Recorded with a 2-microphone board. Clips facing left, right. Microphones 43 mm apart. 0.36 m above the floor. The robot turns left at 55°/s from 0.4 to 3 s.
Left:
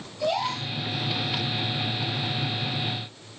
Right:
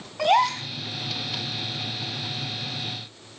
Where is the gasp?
65° right (ahead or behind), 3 m; by 0.7 s 55° right (ahead or behind), 3 m.